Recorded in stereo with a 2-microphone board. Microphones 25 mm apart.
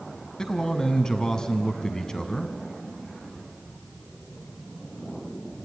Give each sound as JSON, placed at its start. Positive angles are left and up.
{"t": 0.4, "sound": "a man speaking", "side_deg": 25, "distance_m": 1.5}